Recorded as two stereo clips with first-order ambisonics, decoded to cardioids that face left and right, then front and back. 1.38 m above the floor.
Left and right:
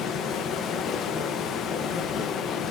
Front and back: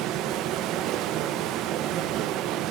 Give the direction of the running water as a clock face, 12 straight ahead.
7 o'clock.